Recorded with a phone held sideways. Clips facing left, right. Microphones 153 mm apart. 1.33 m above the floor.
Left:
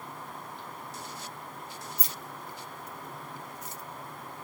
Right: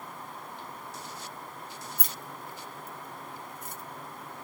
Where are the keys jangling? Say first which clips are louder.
Even; 55° right (ahead or behind), 0.7 m.